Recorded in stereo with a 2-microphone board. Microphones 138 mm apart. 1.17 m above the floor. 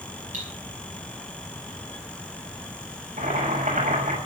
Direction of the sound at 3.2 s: 80° right.